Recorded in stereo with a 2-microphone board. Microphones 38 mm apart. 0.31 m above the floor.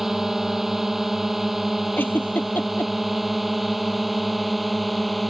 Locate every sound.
0.0 s a drone: 10° right (ahead or behind); by 5.3 s centre (ahead or behind)
2.0 s a giggle: 65° left (ahead or behind)